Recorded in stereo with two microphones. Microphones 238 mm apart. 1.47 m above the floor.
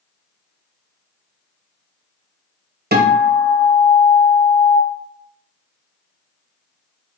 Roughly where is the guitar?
Right.